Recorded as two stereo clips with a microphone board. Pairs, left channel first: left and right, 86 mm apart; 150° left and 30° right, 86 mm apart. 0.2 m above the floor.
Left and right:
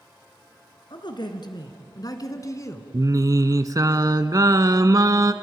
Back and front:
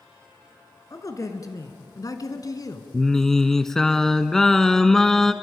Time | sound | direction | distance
0.9 | a man speaking | 105° left | 2.5 m
2.9 | singing | 125° right | 0.8 m